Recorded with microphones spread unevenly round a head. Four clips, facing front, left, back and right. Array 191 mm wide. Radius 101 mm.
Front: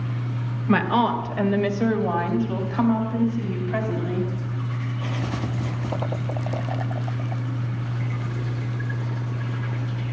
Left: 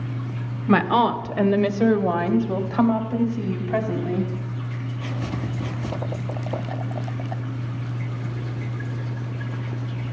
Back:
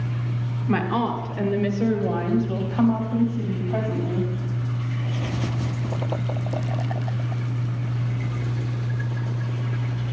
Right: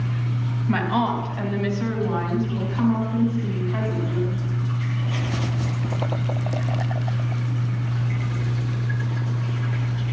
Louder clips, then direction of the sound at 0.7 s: Left 4 dB, front 3 dB; 80° left.